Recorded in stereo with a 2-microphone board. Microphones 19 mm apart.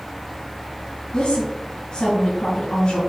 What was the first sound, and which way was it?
A woman speaking, 65° left (ahead or behind).